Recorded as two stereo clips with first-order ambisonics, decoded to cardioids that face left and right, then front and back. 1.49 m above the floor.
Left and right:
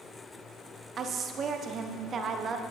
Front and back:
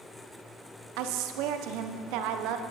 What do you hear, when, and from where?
1.0 s a woman speaking: 155° right, 0.7 m